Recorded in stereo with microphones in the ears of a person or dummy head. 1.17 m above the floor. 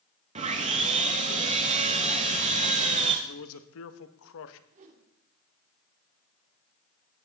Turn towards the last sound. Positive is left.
turn(degrees=-40)  # may be behind; listen again after turning